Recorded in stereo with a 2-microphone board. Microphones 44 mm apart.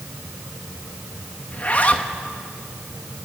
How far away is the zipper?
About 1.3 m.